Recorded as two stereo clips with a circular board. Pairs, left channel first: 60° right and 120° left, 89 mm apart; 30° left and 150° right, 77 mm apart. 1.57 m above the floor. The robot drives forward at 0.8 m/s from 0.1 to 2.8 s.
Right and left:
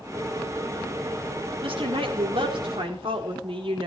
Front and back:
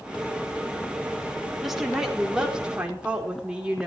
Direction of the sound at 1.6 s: 125° left.